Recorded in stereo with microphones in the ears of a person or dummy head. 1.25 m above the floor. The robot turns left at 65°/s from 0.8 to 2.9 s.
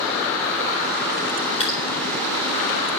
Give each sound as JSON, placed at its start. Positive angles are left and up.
{"t": 1.6, "sound": "dripping", "side_deg": 35, "distance_m": 4.0}